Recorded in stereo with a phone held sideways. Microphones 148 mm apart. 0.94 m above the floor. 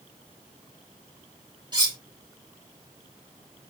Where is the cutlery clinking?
30° right (ahead or behind), 2.5 m.